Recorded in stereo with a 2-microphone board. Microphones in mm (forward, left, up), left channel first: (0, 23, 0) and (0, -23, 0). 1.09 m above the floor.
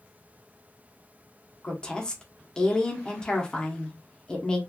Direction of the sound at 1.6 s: 15° left (ahead or behind).